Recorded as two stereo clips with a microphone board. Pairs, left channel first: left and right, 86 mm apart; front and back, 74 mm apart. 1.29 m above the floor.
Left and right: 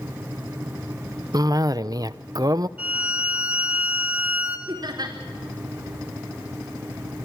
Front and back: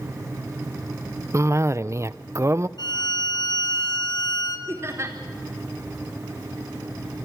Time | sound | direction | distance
1.3 | a cough | 130° right | 0.6 m
2.8 | a violin | 15° right | 2.5 m
4.7 | laughter | 130° right | 4.5 m